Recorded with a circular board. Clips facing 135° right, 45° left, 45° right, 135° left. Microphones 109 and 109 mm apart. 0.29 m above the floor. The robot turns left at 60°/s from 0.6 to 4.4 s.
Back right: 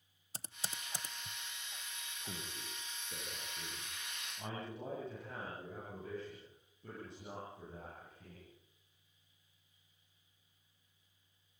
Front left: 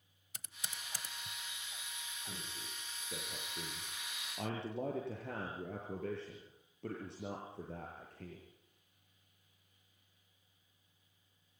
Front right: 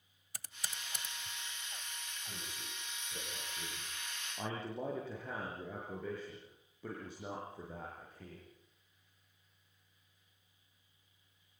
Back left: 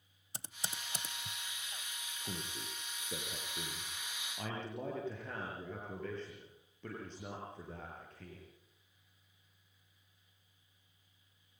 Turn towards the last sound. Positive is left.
turn(degrees=35)